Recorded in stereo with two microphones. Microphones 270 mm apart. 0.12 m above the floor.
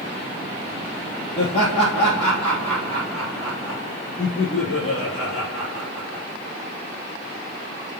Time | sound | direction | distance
1.4 | laughter | 25° left (ahead or behind) | 3 m